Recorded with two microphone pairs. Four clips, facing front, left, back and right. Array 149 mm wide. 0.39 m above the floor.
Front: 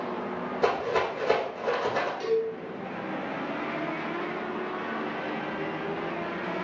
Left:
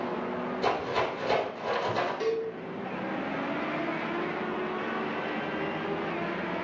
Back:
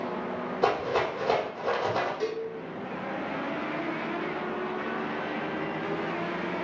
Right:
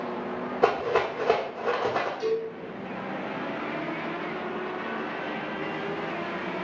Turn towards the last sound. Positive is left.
turn(degrees=120)